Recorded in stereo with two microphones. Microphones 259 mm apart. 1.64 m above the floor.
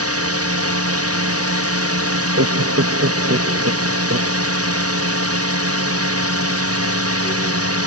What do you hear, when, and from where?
0.0 s a drone: 65° right (ahead or behind)
2.1 s laughter: 75° right (ahead or behind)